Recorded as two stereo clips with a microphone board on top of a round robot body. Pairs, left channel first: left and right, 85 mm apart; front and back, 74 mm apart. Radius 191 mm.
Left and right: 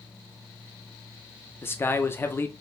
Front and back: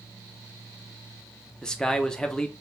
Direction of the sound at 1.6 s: 70° left.